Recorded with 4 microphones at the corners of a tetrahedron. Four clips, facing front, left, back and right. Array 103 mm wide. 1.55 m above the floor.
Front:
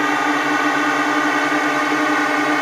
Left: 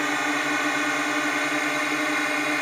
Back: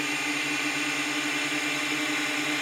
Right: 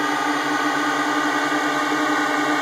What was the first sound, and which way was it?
A drone, 15° right.